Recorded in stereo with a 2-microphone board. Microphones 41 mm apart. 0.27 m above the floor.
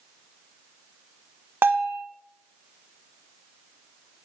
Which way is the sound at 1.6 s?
65° right (ahead or behind).